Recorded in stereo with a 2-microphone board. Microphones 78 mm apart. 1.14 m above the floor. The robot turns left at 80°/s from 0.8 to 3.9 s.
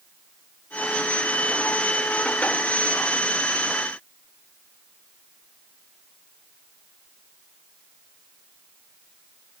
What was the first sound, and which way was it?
Only background noise.